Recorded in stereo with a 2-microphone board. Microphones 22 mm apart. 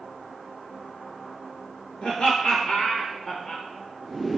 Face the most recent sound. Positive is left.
turn(degrees=30)  # may be behind; listen again after turning